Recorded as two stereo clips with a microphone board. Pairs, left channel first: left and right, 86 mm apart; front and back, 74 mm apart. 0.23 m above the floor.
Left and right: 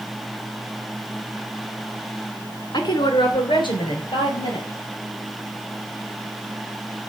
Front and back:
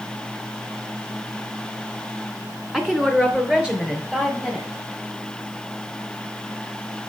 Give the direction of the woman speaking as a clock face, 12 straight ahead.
9 o'clock.